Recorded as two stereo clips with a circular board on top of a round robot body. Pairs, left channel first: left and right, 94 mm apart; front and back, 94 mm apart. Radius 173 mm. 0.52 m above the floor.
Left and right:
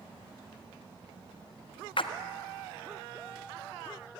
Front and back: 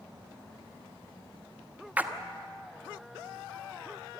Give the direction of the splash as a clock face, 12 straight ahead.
8 o'clock.